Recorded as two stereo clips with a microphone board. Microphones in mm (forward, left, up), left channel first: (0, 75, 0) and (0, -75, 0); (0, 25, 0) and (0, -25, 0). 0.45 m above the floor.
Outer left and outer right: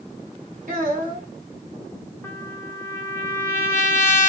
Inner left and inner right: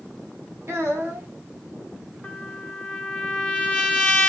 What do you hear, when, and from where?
0.7 s a child speaking: 70° right (ahead or behind), 1.9 m
2.2 s a trumpet: 15° left (ahead or behind), 1.0 m